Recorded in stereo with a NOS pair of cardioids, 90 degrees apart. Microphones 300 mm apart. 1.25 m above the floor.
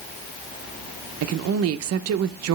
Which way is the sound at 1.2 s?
55° right.